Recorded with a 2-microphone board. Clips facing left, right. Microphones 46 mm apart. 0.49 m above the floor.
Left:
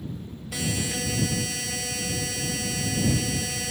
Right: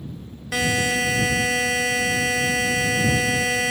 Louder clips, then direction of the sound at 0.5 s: Right 9 dB; 70° right (ahead or behind).